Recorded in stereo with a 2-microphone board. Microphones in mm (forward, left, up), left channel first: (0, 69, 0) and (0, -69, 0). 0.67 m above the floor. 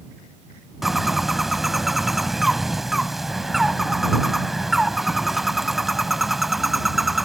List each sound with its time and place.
0.8 s a bird: centre (ahead or behind)